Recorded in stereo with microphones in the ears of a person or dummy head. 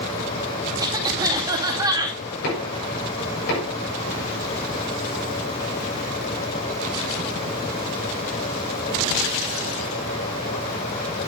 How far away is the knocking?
About 7 m.